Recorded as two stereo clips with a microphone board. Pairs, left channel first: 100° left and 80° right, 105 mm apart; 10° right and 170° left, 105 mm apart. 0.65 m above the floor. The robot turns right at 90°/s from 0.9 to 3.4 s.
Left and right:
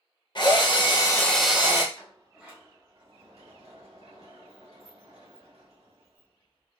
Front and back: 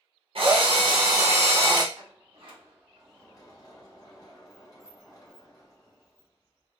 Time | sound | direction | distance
0.3 | a drill | 140° left | 0.8 m
1.9 | a sliding door | 165° left | 1.0 m